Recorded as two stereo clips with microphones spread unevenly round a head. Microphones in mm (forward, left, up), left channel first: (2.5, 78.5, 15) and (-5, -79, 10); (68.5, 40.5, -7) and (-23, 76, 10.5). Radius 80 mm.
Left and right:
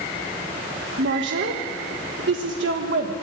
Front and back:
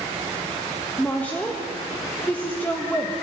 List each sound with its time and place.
1.0 s a woman speaking: 105° right, 1.5 m